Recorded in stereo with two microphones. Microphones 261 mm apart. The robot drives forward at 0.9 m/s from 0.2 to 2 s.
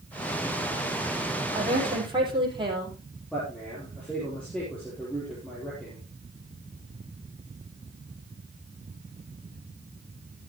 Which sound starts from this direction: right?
A woman speaking, at 1.5 s.